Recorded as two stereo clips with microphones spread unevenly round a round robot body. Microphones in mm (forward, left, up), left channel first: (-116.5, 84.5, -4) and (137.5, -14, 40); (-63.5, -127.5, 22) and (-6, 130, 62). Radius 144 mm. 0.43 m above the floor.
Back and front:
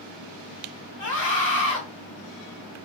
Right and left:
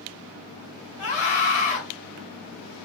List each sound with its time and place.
1.0 s a scream: 160° left, 2.5 m